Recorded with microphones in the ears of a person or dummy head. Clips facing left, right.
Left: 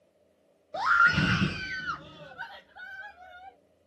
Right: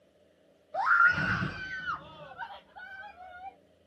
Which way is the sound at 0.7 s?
45° left (ahead or behind).